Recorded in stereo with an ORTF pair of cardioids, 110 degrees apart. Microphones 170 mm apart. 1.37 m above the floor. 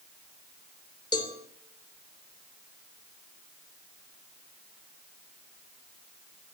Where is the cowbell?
25° left, 3 m.